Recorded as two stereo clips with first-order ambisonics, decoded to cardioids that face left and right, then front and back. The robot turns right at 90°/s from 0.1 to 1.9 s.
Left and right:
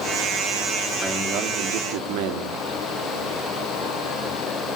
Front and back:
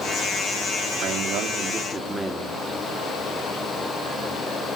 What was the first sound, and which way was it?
A man speaking, 175° right.